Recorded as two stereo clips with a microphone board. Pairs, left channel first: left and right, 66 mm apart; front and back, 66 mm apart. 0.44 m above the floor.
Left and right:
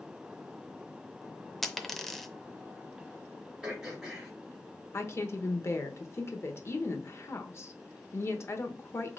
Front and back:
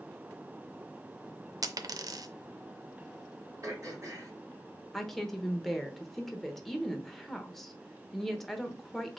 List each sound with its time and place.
1.6 s a dropped coin: 175° left, 0.5 m
3.6 s throat clearing: 165° right, 2.5 m
4.9 s a woman speaking: 85° left, 0.9 m